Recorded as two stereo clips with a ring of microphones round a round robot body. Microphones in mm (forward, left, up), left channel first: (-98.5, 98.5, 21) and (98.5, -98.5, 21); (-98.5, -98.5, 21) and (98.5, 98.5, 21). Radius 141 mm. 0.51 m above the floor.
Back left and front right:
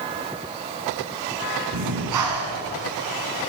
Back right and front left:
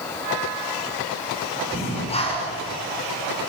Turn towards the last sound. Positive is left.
turn(degrees=-65)